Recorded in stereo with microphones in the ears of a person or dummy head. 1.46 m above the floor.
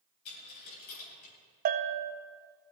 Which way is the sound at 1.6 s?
40° right (ahead or behind).